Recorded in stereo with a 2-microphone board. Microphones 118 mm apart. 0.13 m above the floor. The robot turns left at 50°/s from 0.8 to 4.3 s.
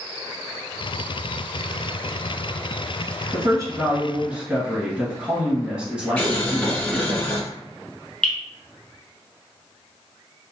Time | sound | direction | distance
3.3 | a woman speaking | 115° right | 1.3 m
6.2 | boiling | 15° left (ahead or behind) | 1.6 m
8.2 | dripping | 10° left (ahead or behind) | 1.3 m